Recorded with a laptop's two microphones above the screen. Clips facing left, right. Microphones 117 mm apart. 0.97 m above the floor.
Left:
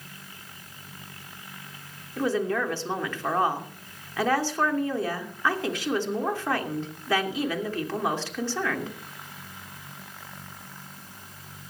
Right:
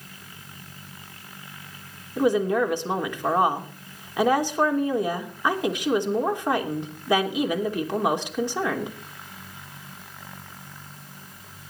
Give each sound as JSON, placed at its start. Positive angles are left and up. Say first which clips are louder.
{"t": 2.2, "sound": "a woman speaking", "louder": "right 5 dB", "side_deg": -15, "distance_m": 2.5}